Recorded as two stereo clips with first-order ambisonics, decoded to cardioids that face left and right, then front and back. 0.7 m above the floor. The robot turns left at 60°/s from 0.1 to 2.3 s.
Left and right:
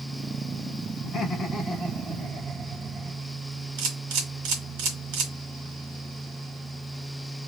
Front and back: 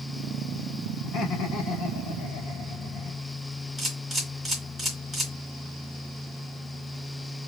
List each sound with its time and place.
1.0 s laughter: 40° left, 1.9 m; by 3.3 s 35° right, 1.9 m
3.8 s a camera shutter: 95° right, 1.8 m